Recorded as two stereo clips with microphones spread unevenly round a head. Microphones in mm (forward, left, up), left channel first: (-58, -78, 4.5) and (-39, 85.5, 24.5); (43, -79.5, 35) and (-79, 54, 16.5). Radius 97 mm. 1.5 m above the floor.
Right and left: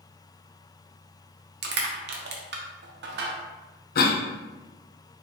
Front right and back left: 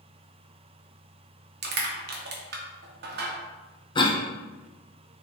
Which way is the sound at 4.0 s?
115° right.